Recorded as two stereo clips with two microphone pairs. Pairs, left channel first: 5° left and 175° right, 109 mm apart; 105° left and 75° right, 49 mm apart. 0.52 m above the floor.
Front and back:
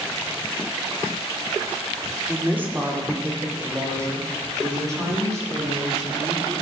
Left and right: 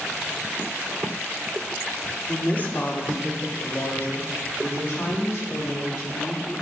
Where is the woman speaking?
125° left, 1.0 m; by 6.6 s 130° left, 6 m.